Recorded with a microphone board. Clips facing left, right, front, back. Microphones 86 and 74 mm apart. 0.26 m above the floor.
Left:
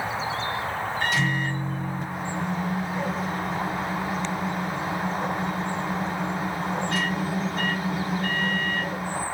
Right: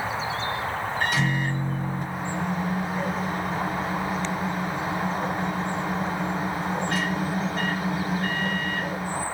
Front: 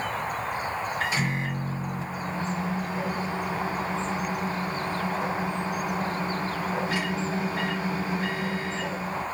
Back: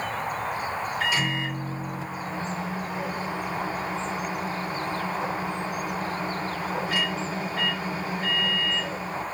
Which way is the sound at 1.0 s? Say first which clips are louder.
Right 1 dB, back 3 dB; 60° right.